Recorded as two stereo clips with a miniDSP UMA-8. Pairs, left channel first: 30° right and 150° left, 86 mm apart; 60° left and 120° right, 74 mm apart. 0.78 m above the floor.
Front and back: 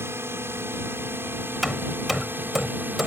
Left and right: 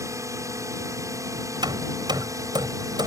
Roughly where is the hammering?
Behind right.